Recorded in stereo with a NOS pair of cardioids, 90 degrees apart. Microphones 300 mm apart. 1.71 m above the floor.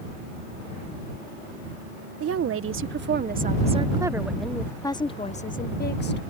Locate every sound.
2.2 s a woman speaking: 55° right; by 6.2 s 40° left